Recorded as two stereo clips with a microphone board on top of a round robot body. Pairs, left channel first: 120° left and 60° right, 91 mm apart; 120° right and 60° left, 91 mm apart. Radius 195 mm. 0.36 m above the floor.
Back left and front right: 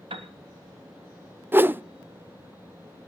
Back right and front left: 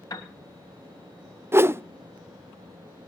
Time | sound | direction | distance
0.1 | a piano | 75° right | 1.8 m
1.5 | a whoosh | straight ahead | 0.6 m